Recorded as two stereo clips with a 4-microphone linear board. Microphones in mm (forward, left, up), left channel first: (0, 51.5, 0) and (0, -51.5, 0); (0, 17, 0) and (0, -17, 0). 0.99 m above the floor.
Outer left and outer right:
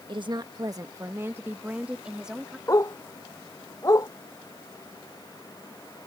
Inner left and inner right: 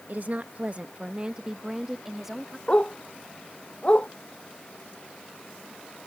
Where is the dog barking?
35° left (ahead or behind).